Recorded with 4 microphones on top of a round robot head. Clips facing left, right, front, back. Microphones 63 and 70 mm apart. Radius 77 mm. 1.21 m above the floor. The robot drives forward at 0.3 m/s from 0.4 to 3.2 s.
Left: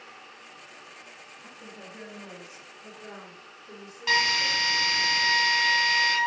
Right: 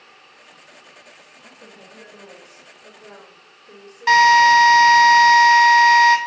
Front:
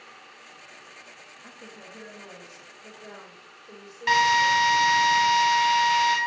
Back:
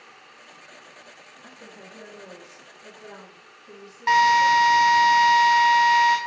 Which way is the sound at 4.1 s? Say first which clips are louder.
Right 15 dB, back 4 dB; 110° right.